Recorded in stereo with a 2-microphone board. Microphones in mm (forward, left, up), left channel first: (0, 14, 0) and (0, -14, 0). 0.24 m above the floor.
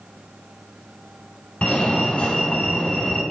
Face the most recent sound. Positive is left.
turn(degrees=50)  # may be behind; listen again after turning